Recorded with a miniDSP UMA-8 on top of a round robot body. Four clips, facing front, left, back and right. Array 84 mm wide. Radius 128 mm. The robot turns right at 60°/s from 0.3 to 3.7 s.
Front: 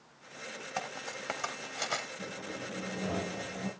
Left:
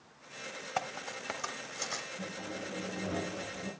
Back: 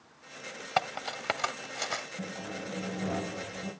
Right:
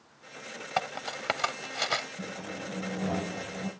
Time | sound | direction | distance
0.8 | cutlery clinking | 160° right | 0.8 m
2.2 | sawing | 165° right | 7.5 m